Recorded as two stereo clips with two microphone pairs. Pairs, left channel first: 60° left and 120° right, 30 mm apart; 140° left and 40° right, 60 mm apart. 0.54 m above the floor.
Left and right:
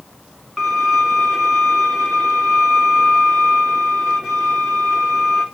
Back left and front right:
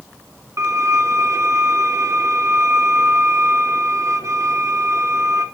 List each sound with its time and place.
0.6 s a violin: 55° right, 1.0 m